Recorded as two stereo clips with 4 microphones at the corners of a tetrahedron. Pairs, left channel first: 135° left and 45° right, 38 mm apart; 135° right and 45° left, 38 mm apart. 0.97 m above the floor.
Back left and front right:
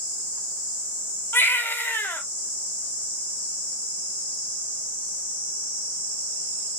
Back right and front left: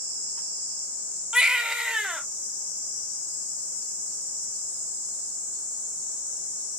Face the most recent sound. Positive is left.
turn(degrees=115)